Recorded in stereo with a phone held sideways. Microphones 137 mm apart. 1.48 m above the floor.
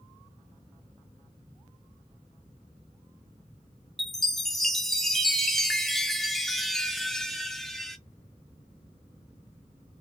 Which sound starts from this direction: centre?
A chime, at 4.0 s.